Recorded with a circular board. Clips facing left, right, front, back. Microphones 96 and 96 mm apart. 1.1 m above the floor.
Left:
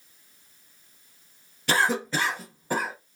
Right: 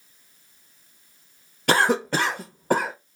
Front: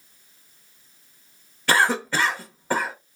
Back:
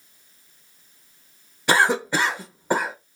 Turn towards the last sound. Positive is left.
turn(degrees=-110)